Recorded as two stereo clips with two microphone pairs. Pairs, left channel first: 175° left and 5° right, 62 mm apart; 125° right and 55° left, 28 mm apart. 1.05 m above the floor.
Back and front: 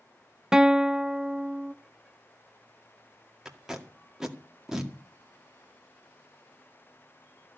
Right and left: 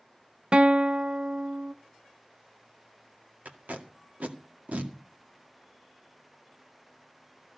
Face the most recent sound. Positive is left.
turn(degrees=80)